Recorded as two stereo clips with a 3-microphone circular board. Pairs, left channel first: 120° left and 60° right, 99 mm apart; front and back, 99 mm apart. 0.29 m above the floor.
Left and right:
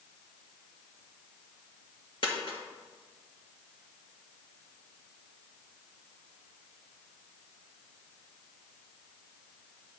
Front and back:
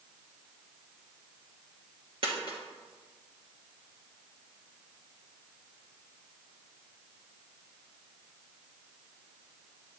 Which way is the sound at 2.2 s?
155° left.